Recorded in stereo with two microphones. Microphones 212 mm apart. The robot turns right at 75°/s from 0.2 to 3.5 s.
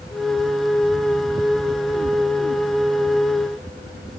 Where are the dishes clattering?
No dishes clattering in this recording.